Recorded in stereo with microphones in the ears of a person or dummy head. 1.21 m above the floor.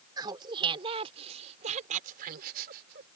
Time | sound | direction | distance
0.2 | laughter | 20° right (ahead or behind) | ?